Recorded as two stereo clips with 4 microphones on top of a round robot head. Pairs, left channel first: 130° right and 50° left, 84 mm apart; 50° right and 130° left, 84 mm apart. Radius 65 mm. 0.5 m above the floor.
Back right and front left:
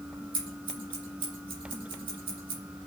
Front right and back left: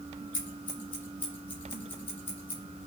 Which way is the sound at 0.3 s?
20° left.